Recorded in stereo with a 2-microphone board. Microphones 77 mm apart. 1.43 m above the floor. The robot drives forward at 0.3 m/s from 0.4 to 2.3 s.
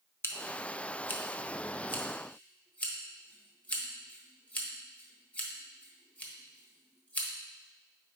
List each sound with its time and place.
0.2 s scissors: 35° left (ahead or behind), 0.7 m; by 7.3 s 20° left (ahead or behind), 1.2 m